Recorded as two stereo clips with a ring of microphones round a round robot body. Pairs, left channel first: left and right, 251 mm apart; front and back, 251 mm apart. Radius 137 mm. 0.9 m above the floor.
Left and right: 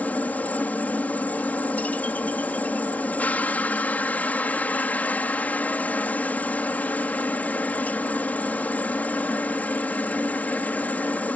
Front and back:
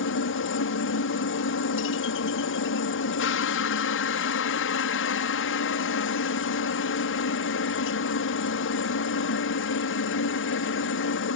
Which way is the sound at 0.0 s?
10° left.